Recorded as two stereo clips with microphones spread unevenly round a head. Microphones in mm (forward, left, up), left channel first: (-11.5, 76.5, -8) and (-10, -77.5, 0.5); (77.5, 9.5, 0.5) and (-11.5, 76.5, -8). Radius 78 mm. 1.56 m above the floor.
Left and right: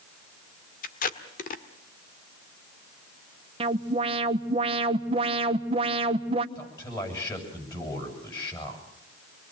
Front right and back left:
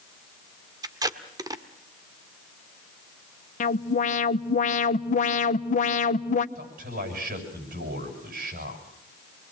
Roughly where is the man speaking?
Behind.